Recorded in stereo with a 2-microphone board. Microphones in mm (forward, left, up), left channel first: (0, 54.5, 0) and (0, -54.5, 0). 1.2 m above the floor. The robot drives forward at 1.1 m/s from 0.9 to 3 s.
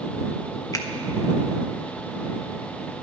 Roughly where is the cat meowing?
I don't hear a cat meowing.